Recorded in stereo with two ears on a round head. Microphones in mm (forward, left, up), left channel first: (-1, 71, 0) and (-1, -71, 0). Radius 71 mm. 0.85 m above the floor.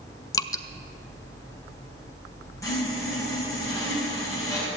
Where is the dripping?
20° left (ahead or behind), 0.6 m.